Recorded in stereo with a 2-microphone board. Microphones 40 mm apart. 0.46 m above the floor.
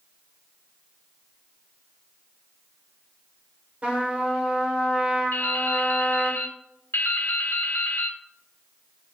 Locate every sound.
3.8 s a trumpet: 35° right (ahead or behind), 1.2 m
5.3 s dripping: 80° left, 0.5 m